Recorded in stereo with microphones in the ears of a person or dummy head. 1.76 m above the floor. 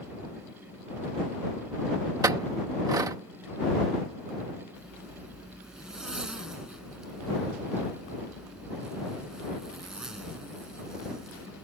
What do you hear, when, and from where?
2.2 s a clink: 20° right (ahead or behind)
4.8 s a zipper: 5° right (ahead or behind)